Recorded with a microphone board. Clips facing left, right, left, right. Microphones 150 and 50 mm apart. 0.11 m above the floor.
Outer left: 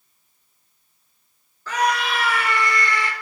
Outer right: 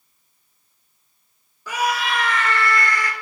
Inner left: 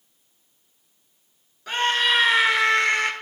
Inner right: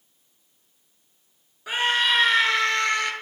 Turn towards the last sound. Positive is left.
turn(degrees=25)  # may be behind; listen again after turning